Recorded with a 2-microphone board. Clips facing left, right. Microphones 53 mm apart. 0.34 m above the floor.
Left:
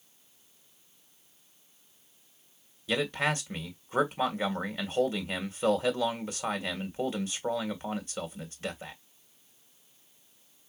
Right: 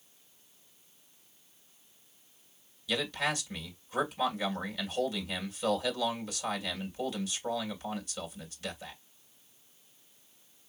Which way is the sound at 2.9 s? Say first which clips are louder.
Left 3 dB; 35° left (ahead or behind).